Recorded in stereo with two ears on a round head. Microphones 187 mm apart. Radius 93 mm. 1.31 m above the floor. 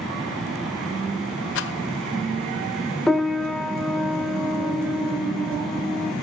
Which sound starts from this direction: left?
A rattle, at 1.6 s.